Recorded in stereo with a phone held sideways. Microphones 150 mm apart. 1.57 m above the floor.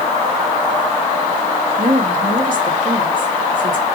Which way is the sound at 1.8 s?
65° right (ahead or behind).